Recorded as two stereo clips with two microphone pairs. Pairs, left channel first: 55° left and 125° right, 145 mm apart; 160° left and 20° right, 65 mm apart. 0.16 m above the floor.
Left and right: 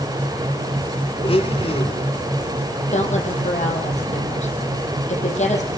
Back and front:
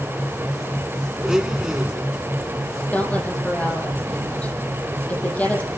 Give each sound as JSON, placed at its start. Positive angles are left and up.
{"t": 1.2, "sound": "a blender", "azimuth_deg": 55, "distance_m": 1.7}
{"t": 2.9, "sound": "a woman speaking", "azimuth_deg": 90, "distance_m": 6.0}